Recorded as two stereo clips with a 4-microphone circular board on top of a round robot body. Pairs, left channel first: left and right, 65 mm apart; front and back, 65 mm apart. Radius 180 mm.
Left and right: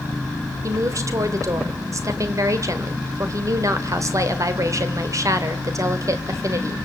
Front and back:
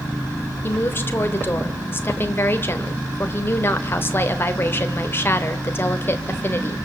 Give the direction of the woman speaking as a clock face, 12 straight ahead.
2 o'clock.